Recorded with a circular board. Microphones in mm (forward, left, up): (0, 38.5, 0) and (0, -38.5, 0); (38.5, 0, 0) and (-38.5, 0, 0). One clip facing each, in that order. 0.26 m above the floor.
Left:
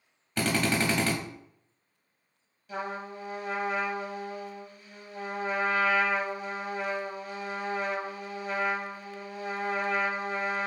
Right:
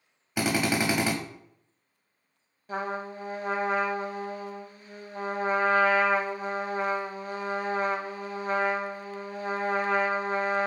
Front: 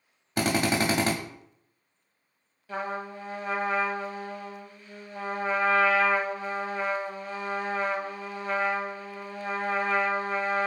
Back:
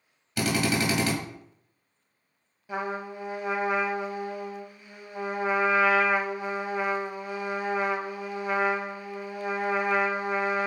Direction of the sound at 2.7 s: 110° right.